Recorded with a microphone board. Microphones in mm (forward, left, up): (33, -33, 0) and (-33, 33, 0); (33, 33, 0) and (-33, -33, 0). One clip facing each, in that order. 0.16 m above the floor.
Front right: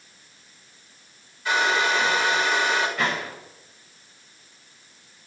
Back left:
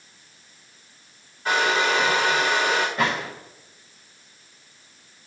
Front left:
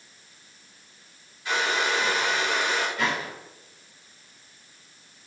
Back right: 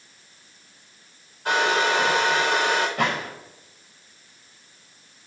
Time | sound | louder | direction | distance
1.4 | a hair dryer | back left 1 dB, back right 5 dB | 175° right | 6.5 m
3.0 | a gunshot | back left 2 dB, back right 3 dB | 170° right | 6 m